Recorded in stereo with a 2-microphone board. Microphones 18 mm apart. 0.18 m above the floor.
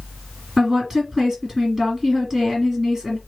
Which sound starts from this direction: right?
A woman speaking, at 0.6 s.